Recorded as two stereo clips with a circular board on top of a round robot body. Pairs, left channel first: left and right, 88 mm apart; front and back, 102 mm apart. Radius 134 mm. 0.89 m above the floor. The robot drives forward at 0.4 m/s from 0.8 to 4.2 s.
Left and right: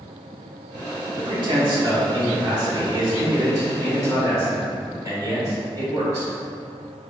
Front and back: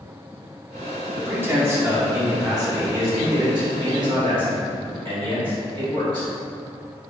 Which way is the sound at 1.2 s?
110° right.